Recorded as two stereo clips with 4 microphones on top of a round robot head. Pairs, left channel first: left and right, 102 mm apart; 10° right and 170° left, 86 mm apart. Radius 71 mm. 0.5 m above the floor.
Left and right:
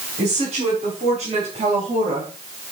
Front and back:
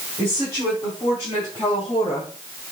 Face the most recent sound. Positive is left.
turn(degrees=-55)